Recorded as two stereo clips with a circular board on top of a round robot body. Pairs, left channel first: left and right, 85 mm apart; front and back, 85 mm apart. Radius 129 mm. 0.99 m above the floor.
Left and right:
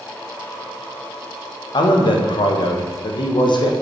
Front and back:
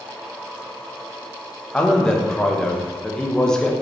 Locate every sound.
1.7 s a man speaking: 80° left, 1.3 m